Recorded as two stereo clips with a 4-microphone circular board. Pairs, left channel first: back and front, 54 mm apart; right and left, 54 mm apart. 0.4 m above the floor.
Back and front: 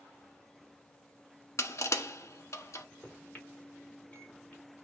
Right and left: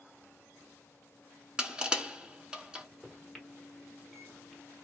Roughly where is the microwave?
Behind.